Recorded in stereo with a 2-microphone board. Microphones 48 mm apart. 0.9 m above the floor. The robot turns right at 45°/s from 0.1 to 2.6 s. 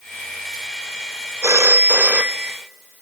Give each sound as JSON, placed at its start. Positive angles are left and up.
{"t": 1.4, "sound": "a phone ringing", "azimuth_deg": -80, "distance_m": 0.7}